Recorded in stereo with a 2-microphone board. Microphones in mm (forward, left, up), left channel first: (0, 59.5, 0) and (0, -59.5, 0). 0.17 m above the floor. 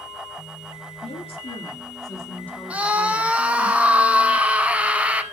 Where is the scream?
10° right (ahead or behind), 1.0 m.